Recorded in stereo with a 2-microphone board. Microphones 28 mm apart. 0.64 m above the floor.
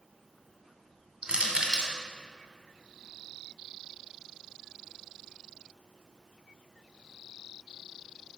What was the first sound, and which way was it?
Crushing, 35° right (ahead or behind).